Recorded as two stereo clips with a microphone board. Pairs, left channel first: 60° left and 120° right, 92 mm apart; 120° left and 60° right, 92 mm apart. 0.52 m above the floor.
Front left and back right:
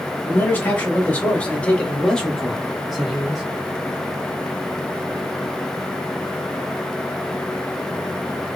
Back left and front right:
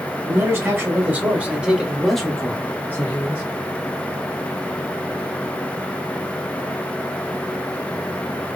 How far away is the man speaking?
About 1.8 m.